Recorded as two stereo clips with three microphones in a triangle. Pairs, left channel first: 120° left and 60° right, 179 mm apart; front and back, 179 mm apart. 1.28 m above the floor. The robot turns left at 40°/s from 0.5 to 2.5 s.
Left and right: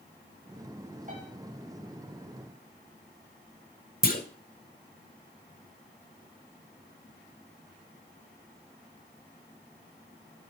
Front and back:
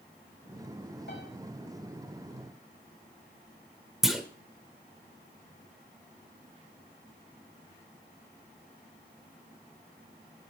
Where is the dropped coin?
No dropped coin in this recording.